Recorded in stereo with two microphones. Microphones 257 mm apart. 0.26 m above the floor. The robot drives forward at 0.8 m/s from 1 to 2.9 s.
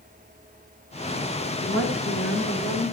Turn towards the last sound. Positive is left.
turn(degrees=45)  # may be behind; listen again after turning